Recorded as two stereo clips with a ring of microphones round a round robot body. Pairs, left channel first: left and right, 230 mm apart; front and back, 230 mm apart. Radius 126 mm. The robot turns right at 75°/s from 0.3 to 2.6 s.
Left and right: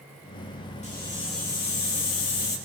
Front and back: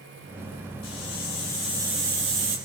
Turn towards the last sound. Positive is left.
turn(degrees=160)